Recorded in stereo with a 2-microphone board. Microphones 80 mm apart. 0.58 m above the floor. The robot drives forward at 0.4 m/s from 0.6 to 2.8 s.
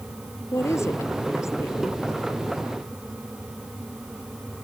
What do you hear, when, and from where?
0.5 s a woman speaking: 40° left (ahead or behind)